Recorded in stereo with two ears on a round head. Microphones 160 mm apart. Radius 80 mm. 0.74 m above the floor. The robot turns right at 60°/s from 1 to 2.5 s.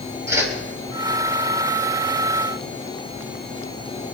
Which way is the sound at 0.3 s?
15° right (ahead or behind).